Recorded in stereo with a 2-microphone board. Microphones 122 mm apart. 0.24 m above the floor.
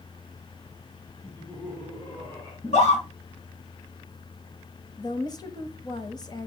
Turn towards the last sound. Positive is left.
turn(degrees=35)  # may be behind; listen again after turning